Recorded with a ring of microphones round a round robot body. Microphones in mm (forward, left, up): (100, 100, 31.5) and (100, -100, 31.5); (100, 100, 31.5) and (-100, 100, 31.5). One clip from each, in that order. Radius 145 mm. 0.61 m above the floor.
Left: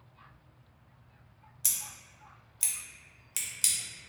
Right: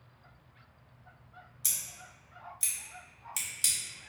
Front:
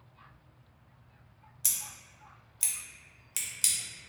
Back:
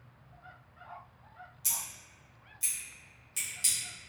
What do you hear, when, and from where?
1.6 s scissors: 25° left, 0.8 m